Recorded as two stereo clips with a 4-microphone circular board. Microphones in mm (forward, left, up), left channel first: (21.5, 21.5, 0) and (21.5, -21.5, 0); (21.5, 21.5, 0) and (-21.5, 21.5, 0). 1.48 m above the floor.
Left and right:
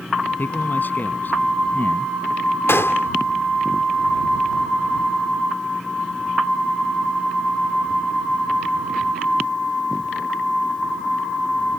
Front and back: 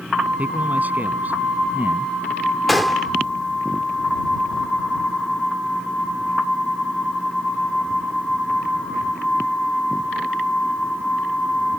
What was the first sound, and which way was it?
A man speaking, 130° left.